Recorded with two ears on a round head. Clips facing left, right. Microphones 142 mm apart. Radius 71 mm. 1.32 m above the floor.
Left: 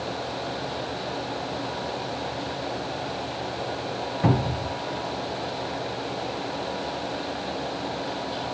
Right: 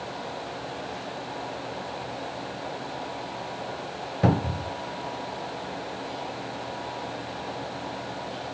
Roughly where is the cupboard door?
Right.